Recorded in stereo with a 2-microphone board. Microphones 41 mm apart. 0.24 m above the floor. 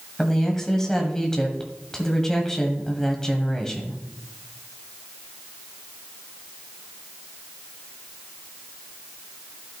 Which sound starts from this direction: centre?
A woman speaking, at 0.2 s.